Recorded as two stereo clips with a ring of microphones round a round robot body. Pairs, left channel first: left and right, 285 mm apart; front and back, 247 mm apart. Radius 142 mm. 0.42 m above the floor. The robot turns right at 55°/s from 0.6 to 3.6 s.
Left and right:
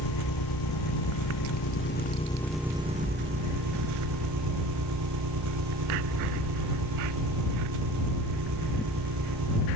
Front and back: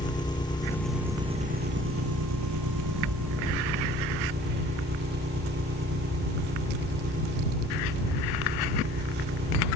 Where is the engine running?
75° left; by 9.8 s 120° right.